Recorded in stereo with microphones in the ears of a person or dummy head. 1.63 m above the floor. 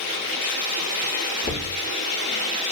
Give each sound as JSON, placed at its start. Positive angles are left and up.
{"t": 1.4, "sound": "knocking", "side_deg": 35, "distance_m": 1.3}